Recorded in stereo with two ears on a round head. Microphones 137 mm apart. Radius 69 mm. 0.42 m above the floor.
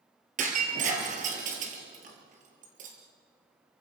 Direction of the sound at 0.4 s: 50° right (ahead or behind).